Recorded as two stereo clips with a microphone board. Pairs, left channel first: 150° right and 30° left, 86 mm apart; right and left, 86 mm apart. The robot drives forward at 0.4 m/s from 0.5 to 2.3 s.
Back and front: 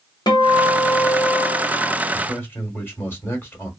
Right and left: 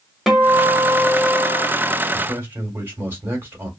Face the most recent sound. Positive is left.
turn(degrees=150)